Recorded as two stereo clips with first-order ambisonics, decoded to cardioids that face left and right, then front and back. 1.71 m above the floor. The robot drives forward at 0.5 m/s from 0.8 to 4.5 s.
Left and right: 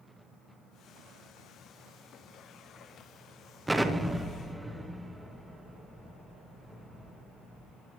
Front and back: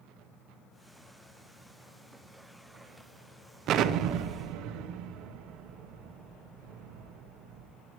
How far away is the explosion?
About 0.6 m.